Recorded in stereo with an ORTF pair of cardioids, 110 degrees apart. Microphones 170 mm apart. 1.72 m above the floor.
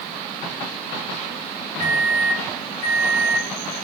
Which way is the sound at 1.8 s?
20° left.